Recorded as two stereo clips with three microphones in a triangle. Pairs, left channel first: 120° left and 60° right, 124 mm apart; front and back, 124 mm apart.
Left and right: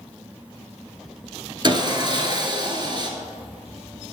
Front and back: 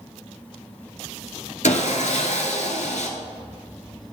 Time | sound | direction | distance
1.6 | sawing | 10° right | 0.8 m